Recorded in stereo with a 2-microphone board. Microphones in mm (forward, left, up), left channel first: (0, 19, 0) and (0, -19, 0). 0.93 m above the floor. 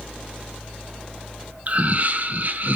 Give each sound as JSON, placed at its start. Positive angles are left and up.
{"t": 1.7, "sound": "laughter", "side_deg": -45, "distance_m": 1.1}